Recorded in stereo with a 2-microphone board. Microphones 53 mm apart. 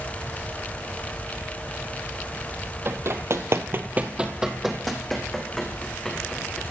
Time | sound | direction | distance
2.9 | running footsteps | 50° right (ahead or behind) | 1.2 m